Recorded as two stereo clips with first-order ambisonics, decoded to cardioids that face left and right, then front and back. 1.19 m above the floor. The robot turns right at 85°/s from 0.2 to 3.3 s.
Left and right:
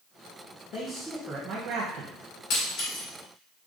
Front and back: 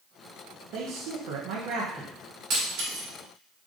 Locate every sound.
0.7 s a man speaking: 145° left, 0.6 m; by 2.1 s 100° right, 0.6 m
2.5 s breaking glass: 125° left, 2.5 m; by 3.1 s 175° left, 2.5 m